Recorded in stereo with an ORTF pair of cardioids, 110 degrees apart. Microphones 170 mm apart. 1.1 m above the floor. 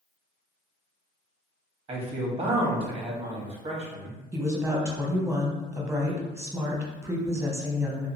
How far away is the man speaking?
About 1.1 m.